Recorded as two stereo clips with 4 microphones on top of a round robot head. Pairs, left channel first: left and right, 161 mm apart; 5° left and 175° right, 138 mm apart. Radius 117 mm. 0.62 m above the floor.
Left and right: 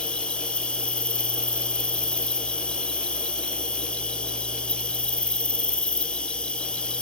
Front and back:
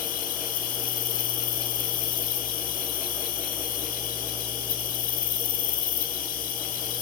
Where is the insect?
5° left, 1.5 m.